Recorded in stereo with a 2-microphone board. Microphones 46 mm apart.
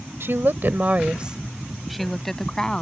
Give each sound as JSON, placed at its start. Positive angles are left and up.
{"t": 0.2, "sound": "a woman speaking", "side_deg": -60}